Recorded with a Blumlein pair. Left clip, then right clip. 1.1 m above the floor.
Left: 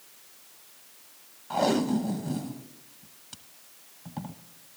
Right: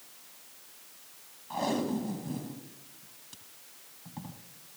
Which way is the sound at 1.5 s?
20° left.